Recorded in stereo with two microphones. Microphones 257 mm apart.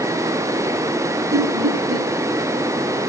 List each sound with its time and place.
1.3 s laughter: 80° right, 6.5 m